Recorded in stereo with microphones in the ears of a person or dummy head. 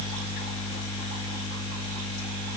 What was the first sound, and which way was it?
Only background noise.